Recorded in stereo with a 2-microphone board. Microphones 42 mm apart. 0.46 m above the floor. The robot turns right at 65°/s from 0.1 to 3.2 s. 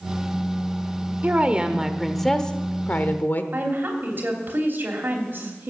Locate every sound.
1.2 s a woman speaking: 55° right, 1.0 m; by 3.4 s 75° left, 1.0 m
3.5 s a woman speaking: 50° right (ahead or behind), 3 m